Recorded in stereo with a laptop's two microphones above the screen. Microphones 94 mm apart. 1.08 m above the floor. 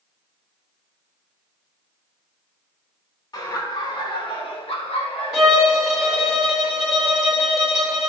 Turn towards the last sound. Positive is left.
turn(degrees=-5)  # may be behind; listen again after turning